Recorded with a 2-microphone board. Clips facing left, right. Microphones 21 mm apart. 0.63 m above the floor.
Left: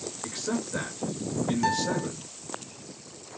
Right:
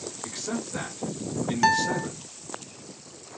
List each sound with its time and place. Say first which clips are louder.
0.2 s a man speaking: left 2 dB; 25° left (ahead or behind), 2.5 m
1.6 s a guitar: right 8 dB; 35° right (ahead or behind), 0.5 m